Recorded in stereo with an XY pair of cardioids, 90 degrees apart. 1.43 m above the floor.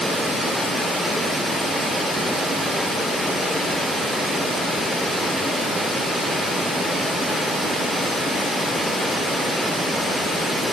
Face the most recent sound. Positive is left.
No sound to turn to.